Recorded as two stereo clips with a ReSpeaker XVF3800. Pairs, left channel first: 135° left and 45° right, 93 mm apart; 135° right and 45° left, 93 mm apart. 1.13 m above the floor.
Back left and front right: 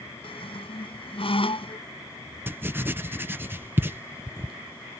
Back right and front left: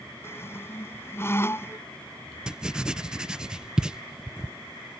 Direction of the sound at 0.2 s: 160° left.